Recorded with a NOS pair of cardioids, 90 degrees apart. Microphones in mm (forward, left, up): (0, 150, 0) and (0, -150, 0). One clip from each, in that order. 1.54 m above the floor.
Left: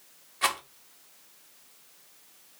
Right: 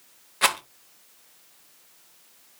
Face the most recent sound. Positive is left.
turn(degrees=-30)